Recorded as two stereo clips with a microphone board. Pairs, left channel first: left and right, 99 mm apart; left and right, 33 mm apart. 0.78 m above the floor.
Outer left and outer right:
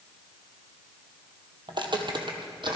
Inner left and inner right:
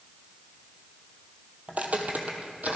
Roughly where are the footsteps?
Right.